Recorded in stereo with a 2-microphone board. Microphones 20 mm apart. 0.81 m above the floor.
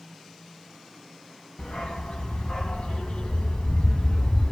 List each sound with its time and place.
1.6 s a dog barking: 65° left (ahead or behind), 3 m; by 4.5 s 80° left, 2.5 m